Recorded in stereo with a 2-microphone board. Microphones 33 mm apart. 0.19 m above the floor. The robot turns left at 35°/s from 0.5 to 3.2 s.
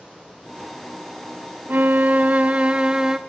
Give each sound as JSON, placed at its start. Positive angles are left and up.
{"t": 1.7, "sound": "a violin", "azimuth_deg": -105, "distance_m": 0.6}